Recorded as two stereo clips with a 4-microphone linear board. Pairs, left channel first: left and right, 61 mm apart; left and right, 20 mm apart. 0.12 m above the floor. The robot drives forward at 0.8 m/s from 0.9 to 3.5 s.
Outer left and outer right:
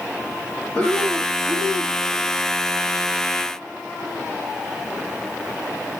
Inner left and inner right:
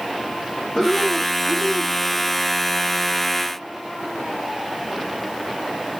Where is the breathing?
25° left (ahead or behind), 6.5 m; by 2.0 s 30° left (ahead or behind), 5.5 m.